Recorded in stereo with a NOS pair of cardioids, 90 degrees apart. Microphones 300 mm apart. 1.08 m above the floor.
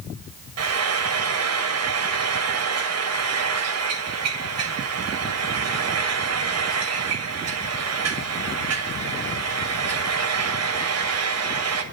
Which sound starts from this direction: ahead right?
Frying, at 0.6 s.